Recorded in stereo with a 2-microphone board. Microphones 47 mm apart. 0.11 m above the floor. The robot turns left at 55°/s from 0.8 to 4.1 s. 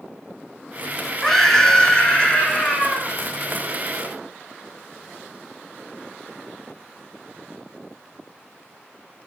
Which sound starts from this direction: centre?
A scream, at 1.2 s.